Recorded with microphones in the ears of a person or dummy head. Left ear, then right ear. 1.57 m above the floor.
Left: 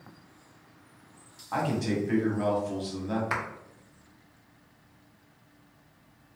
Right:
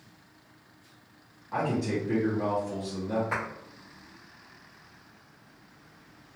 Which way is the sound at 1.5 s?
40° left (ahead or behind).